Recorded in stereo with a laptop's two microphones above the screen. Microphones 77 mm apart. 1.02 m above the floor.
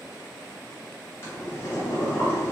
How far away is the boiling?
About 1.9 m.